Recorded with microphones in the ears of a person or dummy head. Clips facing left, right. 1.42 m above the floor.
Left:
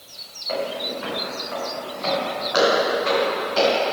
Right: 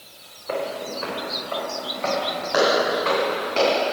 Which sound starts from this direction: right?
Footsteps, at 0.5 s.